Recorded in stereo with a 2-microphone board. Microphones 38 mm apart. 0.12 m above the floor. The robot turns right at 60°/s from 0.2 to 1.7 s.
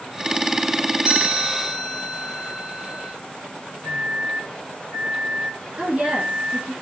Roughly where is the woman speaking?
Right.